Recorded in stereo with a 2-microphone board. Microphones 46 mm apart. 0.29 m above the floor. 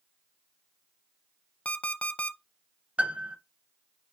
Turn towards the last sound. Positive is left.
turn(degrees=-30)  # may be behind; listen again after turning